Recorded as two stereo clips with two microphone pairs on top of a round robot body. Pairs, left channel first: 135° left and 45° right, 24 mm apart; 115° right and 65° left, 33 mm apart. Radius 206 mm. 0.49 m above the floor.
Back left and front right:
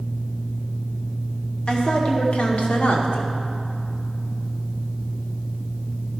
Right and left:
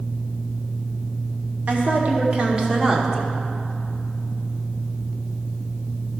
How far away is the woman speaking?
About 1.9 m.